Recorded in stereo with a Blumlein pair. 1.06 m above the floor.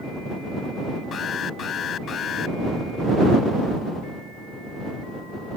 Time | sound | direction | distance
1.1 | an alarm | 25° left | ?